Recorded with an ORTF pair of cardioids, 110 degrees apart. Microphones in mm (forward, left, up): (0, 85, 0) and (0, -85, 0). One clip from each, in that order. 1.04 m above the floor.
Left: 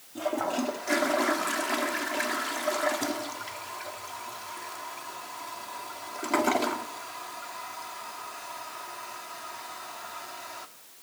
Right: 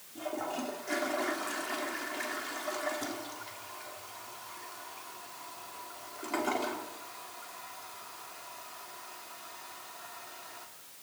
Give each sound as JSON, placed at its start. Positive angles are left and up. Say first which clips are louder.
{"t": 0.1, "sound": "a toilet flushing", "louder": "left 7 dB", "azimuth_deg": 45, "distance_m": 1.4}